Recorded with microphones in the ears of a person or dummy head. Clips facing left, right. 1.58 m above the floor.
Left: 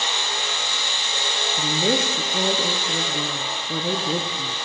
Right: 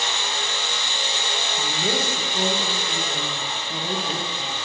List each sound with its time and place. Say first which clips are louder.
1.6 s a woman speaking: left 5 dB; 55° left (ahead or behind), 0.7 m